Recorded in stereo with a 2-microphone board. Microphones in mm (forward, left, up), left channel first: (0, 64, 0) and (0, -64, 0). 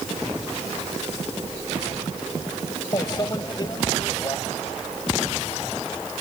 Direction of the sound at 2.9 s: 35° left (ahead or behind).